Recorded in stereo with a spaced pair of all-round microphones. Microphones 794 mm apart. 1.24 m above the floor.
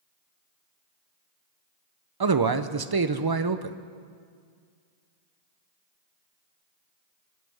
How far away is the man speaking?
About 0.5 m.